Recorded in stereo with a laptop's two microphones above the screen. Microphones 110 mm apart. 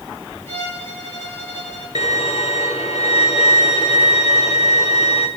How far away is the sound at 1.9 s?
About 2 m.